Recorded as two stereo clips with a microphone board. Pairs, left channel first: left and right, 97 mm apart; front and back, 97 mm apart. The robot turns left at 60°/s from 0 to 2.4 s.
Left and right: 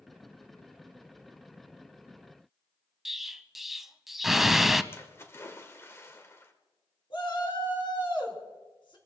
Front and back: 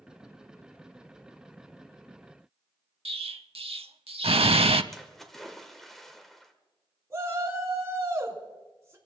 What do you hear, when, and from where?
3.0 s an explosion: 175° right, 0.5 m
4.9 s a splash: 85° left, 1.6 m
7.1 s a shout: 120° left, 4.5 m